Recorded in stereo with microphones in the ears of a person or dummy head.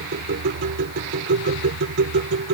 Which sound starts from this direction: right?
A machine running, at 0.0 s.